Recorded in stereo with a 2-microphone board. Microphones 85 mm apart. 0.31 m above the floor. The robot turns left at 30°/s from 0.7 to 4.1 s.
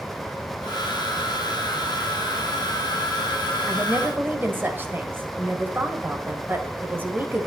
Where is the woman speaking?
20° right (ahead or behind), 1.3 m; by 7.5 s 25° right (ahead or behind), 1.3 m.